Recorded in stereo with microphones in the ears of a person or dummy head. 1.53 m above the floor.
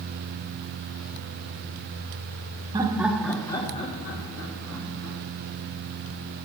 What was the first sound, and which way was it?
Laughter, 20° right (ahead or behind).